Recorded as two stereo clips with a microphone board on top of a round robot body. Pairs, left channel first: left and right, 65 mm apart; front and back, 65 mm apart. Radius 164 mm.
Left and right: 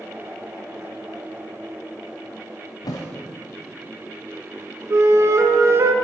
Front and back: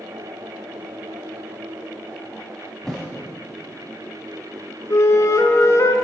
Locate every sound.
2.8 s a thud: 85° left, 0.7 m
4.9 s a flute: 45° right, 0.6 m